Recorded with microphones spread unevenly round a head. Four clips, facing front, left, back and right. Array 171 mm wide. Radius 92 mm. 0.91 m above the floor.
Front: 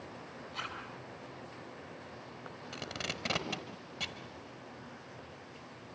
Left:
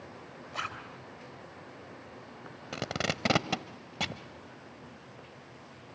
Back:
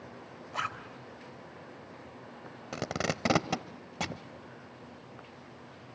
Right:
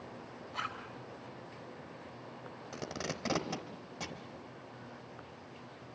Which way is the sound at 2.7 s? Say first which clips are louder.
Left 6 dB, back 10 dB; 145° left.